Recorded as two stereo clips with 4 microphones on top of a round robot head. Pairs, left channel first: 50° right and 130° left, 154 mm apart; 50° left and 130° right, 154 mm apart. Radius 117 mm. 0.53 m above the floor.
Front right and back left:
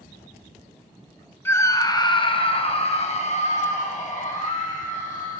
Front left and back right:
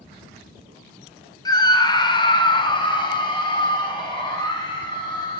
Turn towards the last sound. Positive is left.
turn(degrees=-15)